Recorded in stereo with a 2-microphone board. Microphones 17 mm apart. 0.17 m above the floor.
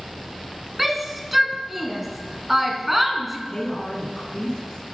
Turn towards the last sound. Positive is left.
turn(degrees=40)  # may be behind; listen again after turning